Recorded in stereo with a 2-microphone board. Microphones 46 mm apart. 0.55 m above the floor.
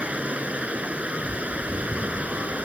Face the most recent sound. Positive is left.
turn(degrees=-30)  # may be behind; listen again after turning